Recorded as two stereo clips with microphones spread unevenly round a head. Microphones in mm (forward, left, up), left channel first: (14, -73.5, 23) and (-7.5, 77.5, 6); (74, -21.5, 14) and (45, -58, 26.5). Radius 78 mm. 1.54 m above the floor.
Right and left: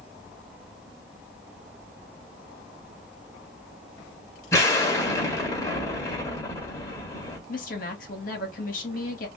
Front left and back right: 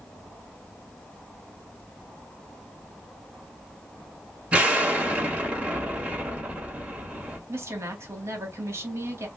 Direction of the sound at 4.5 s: 130° right.